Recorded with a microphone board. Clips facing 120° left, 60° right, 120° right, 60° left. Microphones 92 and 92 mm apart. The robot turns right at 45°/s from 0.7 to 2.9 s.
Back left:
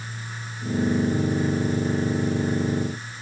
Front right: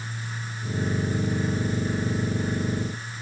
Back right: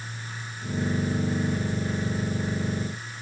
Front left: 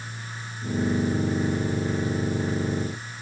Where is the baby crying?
I don't hear a baby crying.